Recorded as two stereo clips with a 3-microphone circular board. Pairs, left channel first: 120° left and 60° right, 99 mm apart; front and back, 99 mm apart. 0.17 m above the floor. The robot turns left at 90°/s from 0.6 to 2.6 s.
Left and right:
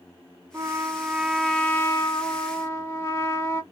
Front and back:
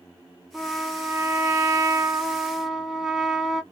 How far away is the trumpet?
About 0.6 m.